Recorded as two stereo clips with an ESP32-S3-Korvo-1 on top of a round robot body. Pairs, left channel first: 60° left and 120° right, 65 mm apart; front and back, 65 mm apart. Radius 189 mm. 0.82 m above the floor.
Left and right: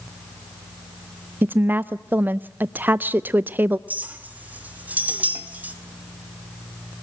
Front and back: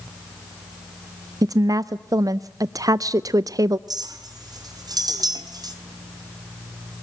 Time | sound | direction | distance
1.4 | a woman speaking | straight behind | 0.6 m
3.9 | a clink | 175° left | 2 m